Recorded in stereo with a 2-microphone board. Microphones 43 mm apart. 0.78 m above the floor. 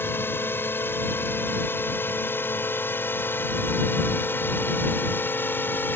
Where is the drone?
65° left (ahead or behind); by 6.0 s 55° left (ahead or behind).